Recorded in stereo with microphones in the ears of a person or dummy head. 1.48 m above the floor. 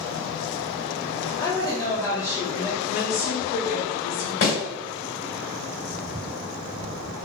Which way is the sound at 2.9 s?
50° left (ahead or behind).